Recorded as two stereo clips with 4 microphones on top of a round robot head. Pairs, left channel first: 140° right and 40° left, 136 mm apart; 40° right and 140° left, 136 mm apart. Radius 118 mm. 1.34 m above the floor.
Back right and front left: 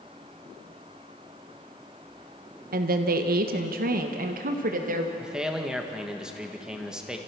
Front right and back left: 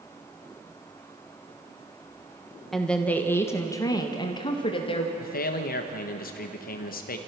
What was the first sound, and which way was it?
A woman speaking, 50° left.